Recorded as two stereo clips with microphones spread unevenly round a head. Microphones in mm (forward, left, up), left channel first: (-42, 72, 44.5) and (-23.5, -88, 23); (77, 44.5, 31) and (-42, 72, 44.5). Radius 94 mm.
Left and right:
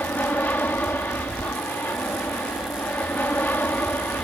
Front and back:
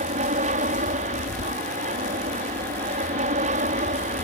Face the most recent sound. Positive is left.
turn(degrees=175)